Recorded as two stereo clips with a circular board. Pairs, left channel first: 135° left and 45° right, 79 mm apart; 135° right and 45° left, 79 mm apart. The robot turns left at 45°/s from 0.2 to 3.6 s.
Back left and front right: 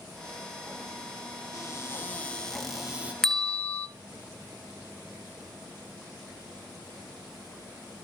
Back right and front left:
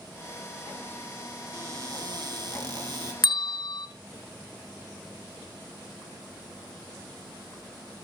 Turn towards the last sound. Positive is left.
turn(degrees=-160)